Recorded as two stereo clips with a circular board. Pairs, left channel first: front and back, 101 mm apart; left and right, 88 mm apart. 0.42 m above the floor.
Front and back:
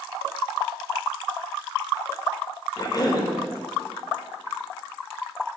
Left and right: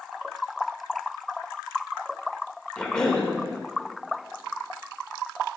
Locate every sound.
2.8 s a cough: 15° left, 1.1 m